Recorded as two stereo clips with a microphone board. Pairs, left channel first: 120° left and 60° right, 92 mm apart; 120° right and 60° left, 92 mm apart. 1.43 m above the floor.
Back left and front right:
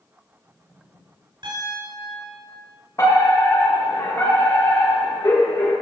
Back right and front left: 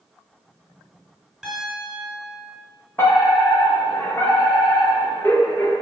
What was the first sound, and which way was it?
A piano, 30° right.